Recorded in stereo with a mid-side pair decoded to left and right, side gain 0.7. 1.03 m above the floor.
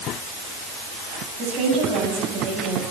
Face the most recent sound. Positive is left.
turn(degrees=-60)